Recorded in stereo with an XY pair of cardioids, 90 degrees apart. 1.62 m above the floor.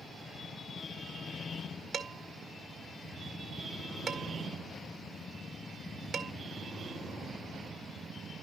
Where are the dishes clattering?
60° right, 2 m.